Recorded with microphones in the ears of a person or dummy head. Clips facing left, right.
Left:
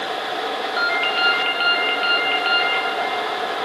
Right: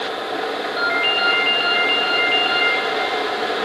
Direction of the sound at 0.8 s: 25° left (ahead or behind).